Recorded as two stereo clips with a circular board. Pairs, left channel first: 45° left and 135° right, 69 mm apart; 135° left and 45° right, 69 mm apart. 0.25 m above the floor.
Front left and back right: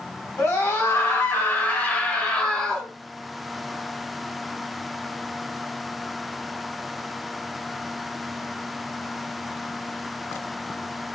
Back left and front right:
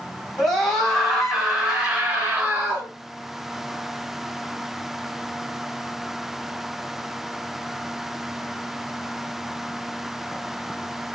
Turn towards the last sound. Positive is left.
turn(degrees=-25)